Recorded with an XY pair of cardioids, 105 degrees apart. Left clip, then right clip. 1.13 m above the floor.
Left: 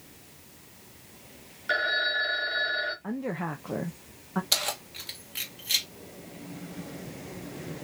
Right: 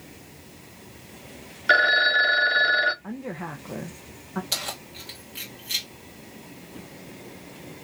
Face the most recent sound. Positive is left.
turn(degrees=30)